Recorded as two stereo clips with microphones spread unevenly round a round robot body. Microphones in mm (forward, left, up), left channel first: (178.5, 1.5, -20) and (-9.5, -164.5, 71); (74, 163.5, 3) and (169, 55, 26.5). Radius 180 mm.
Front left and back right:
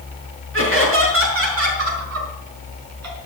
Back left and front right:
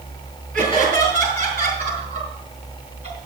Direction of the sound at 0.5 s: 95° right.